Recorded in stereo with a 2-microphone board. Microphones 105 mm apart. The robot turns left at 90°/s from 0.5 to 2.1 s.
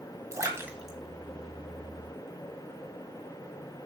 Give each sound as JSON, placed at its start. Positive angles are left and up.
{"t": 0.3, "sound": "a splash", "side_deg": -30, "distance_m": 1.8}